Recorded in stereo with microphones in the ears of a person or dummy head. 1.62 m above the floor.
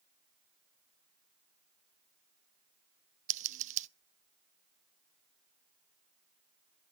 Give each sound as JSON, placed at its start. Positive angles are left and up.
{"t": 3.3, "sound": "scissors", "side_deg": -40, "distance_m": 0.7}